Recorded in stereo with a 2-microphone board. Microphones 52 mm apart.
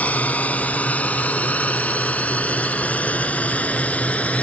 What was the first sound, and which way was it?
A drone, 30° left (ahead or behind).